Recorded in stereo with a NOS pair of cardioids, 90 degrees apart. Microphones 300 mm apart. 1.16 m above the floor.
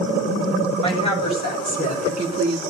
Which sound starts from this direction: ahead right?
A woman speaking, at 0.8 s.